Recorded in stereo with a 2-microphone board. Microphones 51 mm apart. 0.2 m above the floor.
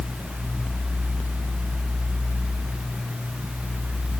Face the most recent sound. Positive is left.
No sound to turn to.